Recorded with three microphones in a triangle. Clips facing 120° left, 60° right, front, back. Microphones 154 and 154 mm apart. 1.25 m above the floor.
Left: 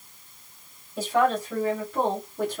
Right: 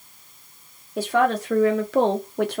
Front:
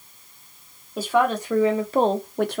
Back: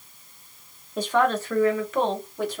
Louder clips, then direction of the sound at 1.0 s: Right 2 dB, front 1 dB; 85° right.